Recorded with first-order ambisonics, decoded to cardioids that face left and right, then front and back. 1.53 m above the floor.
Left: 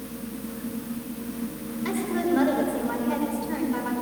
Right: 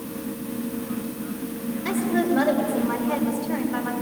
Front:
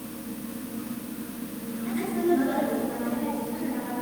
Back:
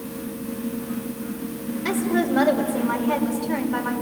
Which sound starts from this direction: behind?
A woman speaking, at 1.9 s.